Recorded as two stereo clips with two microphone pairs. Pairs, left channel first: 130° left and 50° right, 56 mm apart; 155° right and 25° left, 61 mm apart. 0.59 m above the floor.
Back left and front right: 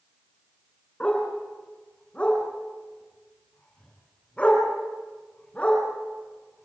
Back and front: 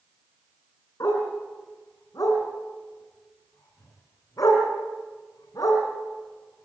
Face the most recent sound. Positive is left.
turn(degrees=-160)